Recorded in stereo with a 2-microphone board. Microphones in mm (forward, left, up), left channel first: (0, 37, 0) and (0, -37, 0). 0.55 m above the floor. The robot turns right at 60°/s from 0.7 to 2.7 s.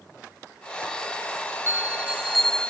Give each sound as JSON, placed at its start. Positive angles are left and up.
{"t": 1.7, "sound": "a bell", "azimuth_deg": -40}